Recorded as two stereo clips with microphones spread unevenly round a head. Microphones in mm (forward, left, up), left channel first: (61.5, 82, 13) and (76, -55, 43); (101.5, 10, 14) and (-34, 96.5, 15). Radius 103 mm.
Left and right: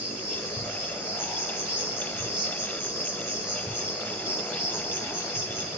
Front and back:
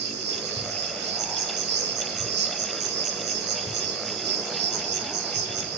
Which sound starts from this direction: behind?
An insect, at 0.0 s.